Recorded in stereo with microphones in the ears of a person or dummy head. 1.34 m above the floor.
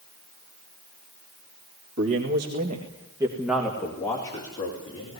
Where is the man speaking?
65° right (ahead or behind), 2.5 m; by 5.2 s 30° left (ahead or behind), 4 m.